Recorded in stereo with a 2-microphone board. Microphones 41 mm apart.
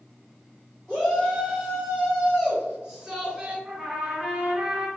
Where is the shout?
10° left (ahead or behind), 1.1 m; by 3.5 s 20° right (ahead or behind), 2.0 m.